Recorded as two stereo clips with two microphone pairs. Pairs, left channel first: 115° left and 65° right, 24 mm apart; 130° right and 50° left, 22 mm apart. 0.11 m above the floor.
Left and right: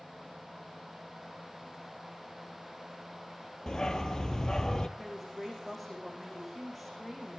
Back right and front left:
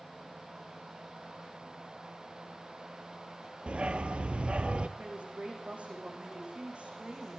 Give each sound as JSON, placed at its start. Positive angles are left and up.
{"t": 3.7, "sound": "a dog barking", "azimuth_deg": 60, "distance_m": 1.1}
{"t": 5.0, "sound": "a woman speaking", "azimuth_deg": 30, "distance_m": 7.5}